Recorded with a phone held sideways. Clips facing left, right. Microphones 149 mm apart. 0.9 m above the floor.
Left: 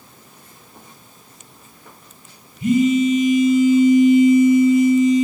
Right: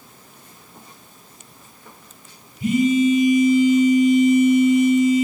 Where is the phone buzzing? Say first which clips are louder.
Left 1 dB; 35° right (ahead or behind), 0.8 m.